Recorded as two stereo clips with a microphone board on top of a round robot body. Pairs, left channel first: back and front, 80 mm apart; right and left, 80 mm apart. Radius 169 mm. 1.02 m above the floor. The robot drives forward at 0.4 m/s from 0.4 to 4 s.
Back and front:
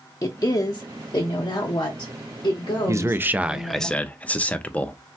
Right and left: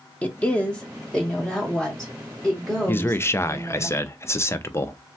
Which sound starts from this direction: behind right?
A woman speaking, at 0.2 s.